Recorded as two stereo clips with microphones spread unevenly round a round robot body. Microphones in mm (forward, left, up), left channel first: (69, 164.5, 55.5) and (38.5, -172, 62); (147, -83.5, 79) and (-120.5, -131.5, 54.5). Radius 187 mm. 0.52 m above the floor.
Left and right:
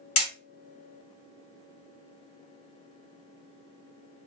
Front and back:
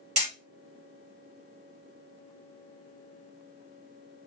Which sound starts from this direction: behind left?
Hammering, at 0.2 s.